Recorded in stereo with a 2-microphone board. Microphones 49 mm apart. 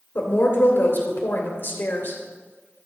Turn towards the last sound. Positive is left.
turn(degrees=55)  # may be behind; listen again after turning